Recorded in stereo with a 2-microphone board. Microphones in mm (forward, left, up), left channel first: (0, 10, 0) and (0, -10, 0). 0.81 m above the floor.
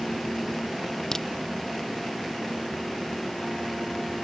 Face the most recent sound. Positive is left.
turn(degrees=30)  # may be behind; listen again after turning